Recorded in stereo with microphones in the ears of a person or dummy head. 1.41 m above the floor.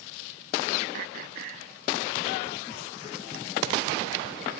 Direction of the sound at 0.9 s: 60° right (ahead or behind).